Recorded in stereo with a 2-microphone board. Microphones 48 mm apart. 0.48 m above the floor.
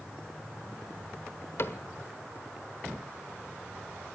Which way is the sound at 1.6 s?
55° left (ahead or behind).